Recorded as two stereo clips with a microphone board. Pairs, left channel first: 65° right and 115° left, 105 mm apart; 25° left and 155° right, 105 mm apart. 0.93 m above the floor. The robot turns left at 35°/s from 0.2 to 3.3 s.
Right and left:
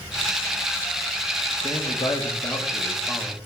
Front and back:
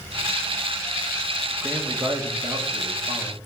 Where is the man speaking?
90° right, 1.5 m; by 3.4 s 150° right, 1.5 m.